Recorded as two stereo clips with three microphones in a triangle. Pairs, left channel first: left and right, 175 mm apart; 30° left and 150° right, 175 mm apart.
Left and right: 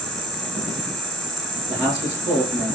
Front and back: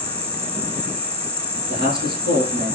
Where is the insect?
Straight ahead, 1.1 m.